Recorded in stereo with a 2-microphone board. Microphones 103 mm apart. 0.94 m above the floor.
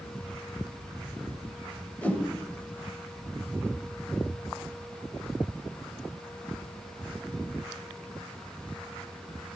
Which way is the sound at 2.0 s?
15° left (ahead or behind).